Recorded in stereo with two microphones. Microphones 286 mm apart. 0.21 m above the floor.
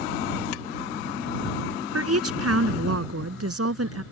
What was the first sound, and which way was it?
A woman speaking, 55° right (ahead or behind).